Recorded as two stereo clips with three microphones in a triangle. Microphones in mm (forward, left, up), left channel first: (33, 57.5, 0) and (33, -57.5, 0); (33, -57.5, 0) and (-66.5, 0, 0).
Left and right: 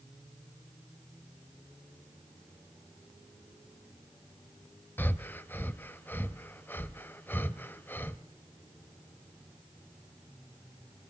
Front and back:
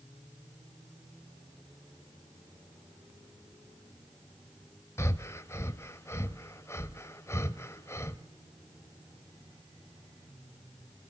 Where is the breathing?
25° left, 1.0 m.